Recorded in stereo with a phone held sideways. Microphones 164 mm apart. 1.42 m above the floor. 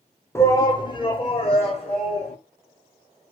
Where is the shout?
15° left (ahead or behind), 0.7 m; by 2.4 s 40° left (ahead or behind), 1.9 m.